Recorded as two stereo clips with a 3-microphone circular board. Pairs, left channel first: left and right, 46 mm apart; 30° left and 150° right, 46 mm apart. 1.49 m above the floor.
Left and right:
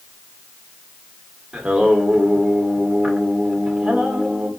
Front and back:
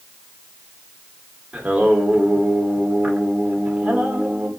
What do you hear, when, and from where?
1.5 s singing: 135° right, 1.0 m